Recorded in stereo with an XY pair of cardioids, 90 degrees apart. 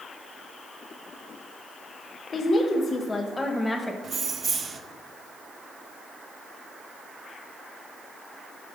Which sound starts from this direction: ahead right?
Keys jangling, at 4.0 s.